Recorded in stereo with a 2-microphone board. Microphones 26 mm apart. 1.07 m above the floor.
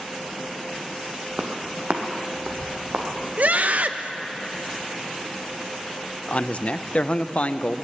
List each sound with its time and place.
1.4 s footsteps: 55° right (ahead or behind), 1.8 m
3.4 s a scream: 65° right (ahead or behind), 0.8 m
6.3 s a man speaking: 50° left (ahead or behind), 0.5 m